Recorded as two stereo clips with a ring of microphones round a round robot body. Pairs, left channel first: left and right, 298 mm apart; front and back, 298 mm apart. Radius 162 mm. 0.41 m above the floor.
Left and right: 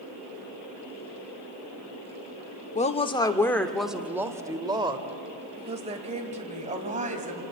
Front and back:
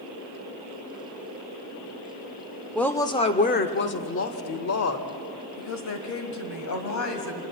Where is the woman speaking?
85° left, 0.8 m; by 7.4 s 25° right, 2.5 m.